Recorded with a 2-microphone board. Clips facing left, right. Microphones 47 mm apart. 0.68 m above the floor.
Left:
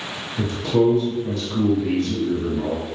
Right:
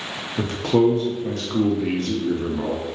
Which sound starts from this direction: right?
A man speaking, at 0.4 s.